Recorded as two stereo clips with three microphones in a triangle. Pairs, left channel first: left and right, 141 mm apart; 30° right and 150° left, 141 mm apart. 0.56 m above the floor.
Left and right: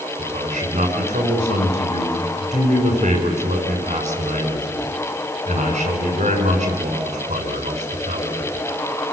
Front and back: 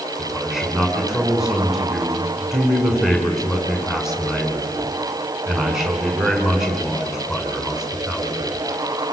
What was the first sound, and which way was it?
A man speaking, 120° right.